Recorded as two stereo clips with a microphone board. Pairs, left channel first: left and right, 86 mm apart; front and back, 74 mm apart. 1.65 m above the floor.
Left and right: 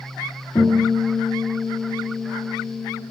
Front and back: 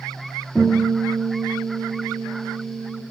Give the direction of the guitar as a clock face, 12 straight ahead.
10 o'clock.